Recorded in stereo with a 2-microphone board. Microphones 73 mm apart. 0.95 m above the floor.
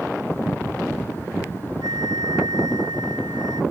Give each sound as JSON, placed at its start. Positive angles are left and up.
{"t": 1.8, "sound": "a flute", "side_deg": -80}